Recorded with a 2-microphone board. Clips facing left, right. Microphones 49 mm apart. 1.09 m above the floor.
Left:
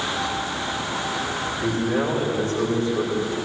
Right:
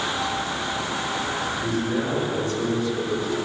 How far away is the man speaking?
About 5.5 m.